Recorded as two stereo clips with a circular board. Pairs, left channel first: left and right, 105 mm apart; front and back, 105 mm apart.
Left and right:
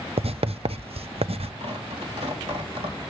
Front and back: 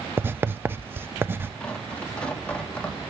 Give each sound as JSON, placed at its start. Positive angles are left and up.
{"t": 0.2, "sound": "writing", "azimuth_deg": -110, "distance_m": 0.6}
{"t": 1.6, "sound": "tearing paper", "azimuth_deg": -80, "distance_m": 3.0}